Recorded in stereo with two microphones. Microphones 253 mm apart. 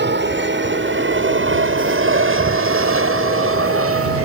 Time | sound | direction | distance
0.0 | an aircraft | 45° right (ahead or behind) | ?